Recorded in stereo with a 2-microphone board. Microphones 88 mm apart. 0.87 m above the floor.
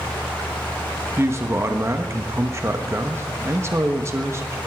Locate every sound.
1.2 s a man speaking: 30° right (ahead or behind), 1.2 m